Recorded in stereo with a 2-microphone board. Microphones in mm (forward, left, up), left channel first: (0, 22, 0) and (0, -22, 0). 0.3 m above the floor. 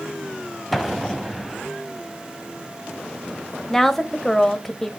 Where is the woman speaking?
10° left (ahead or behind), 1.0 m.